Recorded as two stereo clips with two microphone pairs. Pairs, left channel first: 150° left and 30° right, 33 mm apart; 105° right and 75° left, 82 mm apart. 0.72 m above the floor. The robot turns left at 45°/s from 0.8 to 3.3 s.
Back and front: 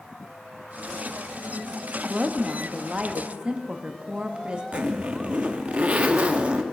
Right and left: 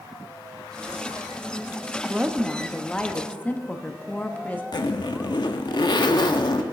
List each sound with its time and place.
2.0 s a woman speaking: 10° left, 0.8 m; by 4.6 s 45° right, 0.8 m
4.7 s a zipper: 80° right, 0.5 m